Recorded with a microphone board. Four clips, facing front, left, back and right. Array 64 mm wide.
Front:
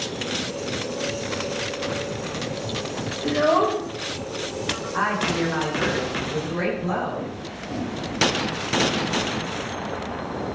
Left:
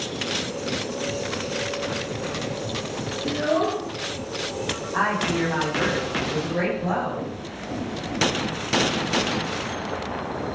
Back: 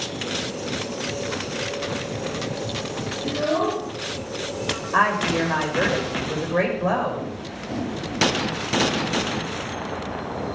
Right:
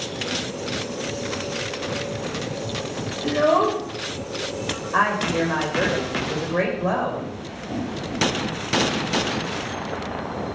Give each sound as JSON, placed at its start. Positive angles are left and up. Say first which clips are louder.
{"t": 3.2, "sound": "a child speaking", "louder": "right 5 dB, front 4 dB", "azimuth_deg": -55, "distance_m": 2.5}
{"t": 4.9, "sound": "a woman speaking", "louder": "right 3 dB, back 4 dB", "azimuth_deg": -140, "distance_m": 6.0}